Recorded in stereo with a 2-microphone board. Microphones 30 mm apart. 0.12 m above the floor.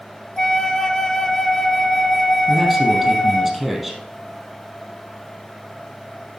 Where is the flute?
15° left (ahead or behind), 0.7 m.